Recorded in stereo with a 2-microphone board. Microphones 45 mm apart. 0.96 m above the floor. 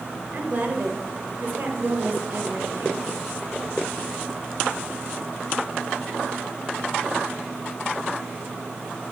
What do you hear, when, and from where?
0.3 s a woman speaking: 45° right (ahead or behind), 1.1 m